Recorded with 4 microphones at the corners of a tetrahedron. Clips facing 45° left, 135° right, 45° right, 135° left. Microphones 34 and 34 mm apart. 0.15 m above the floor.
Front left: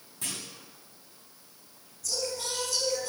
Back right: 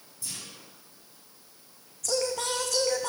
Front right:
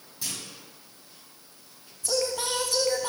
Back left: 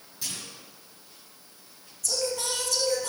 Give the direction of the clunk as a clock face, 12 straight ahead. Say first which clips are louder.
Front left 3 dB, front right 1 dB; 11 o'clock.